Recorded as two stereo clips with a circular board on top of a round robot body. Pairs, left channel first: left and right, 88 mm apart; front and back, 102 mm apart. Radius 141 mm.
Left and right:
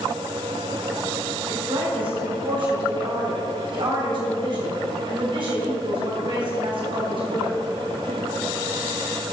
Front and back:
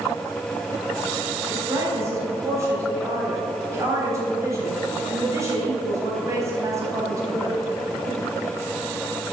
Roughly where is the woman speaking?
Behind right.